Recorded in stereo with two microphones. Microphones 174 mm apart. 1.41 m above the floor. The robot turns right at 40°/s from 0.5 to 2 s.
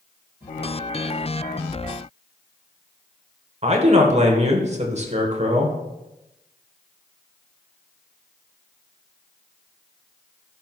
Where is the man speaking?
40° right (ahead or behind), 1.2 m.